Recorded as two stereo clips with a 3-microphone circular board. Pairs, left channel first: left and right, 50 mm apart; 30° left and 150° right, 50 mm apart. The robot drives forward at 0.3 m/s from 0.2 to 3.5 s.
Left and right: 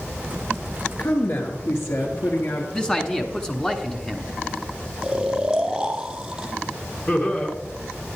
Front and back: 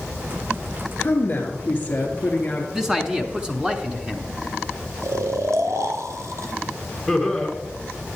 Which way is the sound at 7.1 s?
120° left.